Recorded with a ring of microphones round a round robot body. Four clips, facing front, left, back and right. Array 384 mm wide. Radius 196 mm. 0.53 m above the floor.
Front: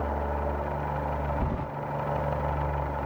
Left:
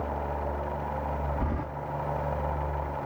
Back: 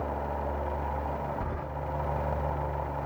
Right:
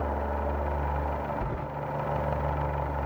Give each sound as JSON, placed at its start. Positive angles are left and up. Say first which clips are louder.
{"t": 1.4, "sound": "keys jangling", "louder": "left 1 dB, front 4 dB", "azimuth_deg": 40, "distance_m": 3.0}